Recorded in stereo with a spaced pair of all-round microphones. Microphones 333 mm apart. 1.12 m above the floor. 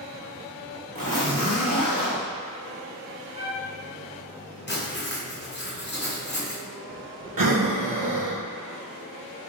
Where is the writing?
30° left (ahead or behind), 0.7 m.